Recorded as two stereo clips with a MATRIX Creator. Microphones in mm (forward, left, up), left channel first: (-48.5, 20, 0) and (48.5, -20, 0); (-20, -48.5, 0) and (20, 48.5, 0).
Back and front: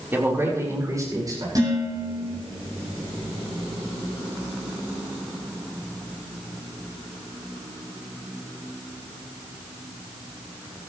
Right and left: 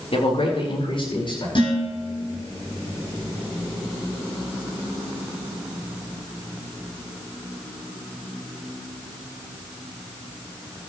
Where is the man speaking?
95° right, 4 m; by 1.4 s 75° right, 5.5 m.